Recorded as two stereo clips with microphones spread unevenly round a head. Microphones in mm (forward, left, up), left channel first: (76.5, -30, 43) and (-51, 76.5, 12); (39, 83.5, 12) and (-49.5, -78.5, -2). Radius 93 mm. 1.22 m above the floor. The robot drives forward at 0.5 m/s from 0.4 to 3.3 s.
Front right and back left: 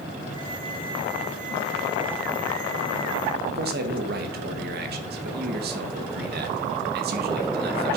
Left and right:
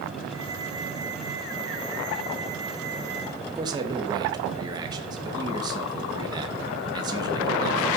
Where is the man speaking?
170° left, 1.4 m.